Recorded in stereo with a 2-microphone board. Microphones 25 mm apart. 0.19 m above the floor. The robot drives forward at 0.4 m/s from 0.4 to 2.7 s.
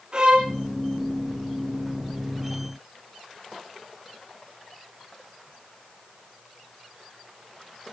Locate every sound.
0.1 s a violin: 35° right (ahead or behind), 2.5 m